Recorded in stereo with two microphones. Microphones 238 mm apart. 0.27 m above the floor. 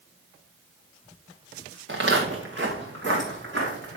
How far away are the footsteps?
About 1.7 m.